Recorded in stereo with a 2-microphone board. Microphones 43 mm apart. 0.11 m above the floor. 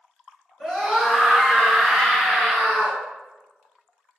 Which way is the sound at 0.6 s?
Centre (ahead or behind).